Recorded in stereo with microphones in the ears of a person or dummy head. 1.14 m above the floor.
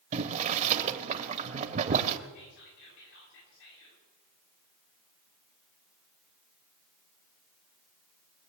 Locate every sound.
0.1 s boiling: 40° right (ahead or behind), 1.0 m
2.3 s whispering: 75° left (ahead or behind), 7.5 m